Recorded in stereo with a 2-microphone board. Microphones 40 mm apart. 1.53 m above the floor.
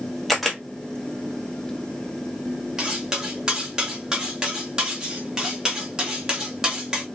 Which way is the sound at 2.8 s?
20° right (ahead or behind).